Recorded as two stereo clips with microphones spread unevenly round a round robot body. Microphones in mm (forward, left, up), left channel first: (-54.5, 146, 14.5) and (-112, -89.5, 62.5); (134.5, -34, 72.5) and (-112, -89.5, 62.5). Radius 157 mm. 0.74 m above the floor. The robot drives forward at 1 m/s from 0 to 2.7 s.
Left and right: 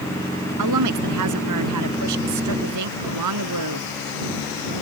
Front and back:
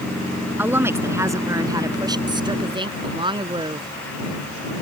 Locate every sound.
0.6 s a woman speaking: 85° right; by 3.9 s 95° right